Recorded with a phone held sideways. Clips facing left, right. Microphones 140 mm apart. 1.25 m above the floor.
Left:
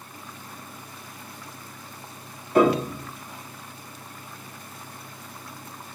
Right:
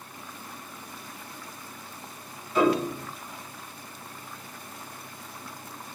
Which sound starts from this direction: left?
A piano, at 2.5 s.